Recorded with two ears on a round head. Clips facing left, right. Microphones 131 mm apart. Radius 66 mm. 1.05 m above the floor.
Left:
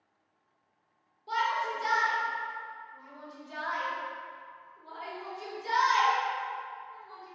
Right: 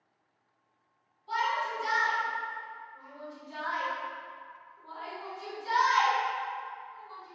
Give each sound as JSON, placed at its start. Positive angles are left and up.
{"t": 1.3, "sound": "a shout", "side_deg": 65, "distance_m": 1.5}